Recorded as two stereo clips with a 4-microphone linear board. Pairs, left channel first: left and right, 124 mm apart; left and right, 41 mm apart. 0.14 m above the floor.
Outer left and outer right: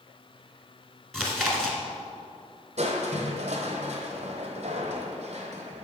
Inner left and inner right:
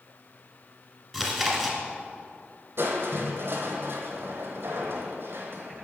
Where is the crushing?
60° right (ahead or behind), 1.0 m.